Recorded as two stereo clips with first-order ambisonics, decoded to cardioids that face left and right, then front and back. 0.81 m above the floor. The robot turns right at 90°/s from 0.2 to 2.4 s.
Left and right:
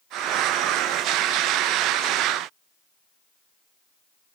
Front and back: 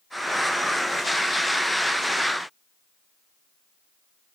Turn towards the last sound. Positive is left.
No sound to turn to.